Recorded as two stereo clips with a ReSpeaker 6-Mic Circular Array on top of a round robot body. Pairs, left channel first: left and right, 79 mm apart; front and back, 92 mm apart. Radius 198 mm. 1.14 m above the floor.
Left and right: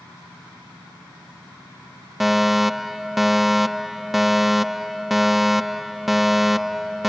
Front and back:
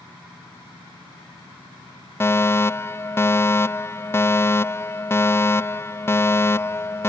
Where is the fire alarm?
5° right.